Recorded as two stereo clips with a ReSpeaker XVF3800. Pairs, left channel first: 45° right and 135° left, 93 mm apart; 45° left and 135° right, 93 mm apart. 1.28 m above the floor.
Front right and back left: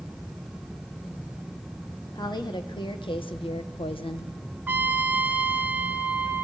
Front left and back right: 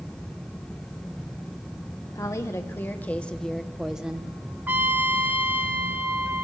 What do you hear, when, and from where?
2.1 s a woman speaking: 5° right, 1.3 m; by 4.3 s 60° right, 1.3 m
4.7 s a trumpet: straight behind, 1.1 m